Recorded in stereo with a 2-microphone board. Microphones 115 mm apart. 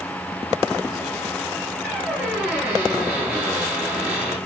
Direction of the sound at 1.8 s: 10° right (ahead or behind).